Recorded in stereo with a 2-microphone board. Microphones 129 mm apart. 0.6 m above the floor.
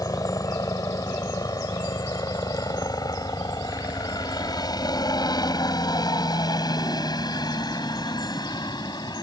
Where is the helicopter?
25° left (ahead or behind); by 9.2 s 30° left (ahead or behind).